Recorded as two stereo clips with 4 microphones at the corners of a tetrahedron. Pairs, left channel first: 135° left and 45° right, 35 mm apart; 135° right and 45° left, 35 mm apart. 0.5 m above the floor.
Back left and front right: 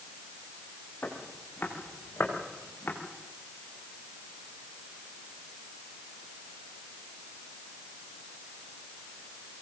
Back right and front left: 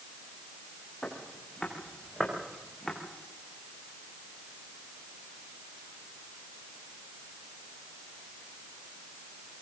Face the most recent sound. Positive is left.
turn(degrees=145)